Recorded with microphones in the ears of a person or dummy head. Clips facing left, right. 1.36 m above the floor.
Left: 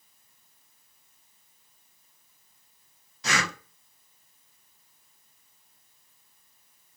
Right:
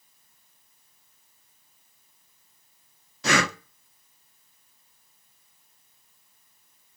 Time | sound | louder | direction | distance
3.2 | breathing | right 6 dB | 55° right (ahead or behind) | 1.2 m